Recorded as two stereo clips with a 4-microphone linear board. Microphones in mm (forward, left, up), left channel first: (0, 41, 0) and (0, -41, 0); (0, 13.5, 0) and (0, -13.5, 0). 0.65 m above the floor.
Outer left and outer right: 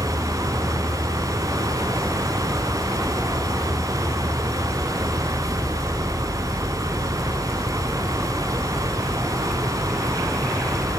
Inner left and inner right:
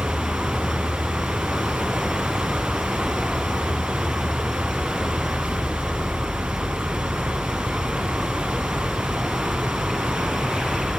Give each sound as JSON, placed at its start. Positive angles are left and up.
{"t": 0.0, "sound": "an insect", "side_deg": 10}